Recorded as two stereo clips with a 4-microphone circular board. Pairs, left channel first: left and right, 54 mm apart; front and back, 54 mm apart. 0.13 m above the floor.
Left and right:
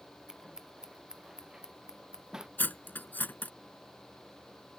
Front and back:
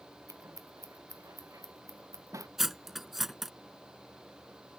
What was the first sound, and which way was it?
Scissors, 170° right.